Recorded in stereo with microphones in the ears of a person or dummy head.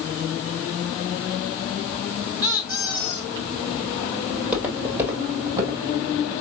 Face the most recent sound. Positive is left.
turn(degrees=-30)  # may be behind; listen again after turning